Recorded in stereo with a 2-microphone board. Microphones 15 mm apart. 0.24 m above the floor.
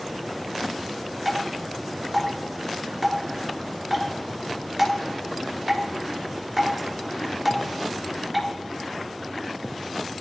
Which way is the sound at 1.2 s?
Centre (ahead or behind).